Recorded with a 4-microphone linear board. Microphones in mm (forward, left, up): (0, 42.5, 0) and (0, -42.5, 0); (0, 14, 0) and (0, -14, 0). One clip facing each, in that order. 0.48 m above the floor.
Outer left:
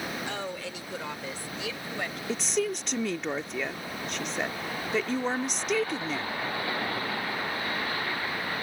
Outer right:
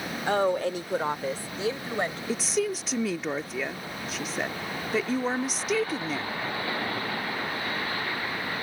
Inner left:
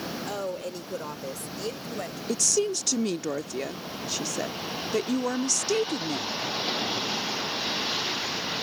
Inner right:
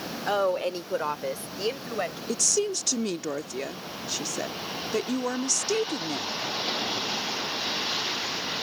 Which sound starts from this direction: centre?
A woman speaking, at 2.3 s.